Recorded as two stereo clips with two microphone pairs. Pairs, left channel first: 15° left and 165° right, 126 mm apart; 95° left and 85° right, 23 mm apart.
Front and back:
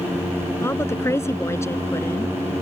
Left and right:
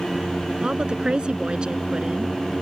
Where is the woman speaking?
50° right.